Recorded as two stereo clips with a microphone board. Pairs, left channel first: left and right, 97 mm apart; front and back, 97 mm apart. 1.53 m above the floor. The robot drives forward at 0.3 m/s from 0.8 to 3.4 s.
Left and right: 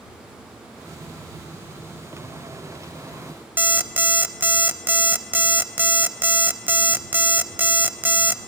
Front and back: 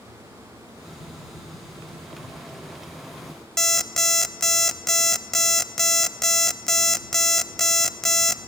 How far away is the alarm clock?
About 0.6 m.